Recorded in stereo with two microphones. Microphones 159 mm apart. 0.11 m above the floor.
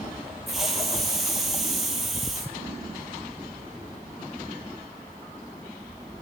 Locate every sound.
0.5 s a hiss: centre (ahead or behind), 2 m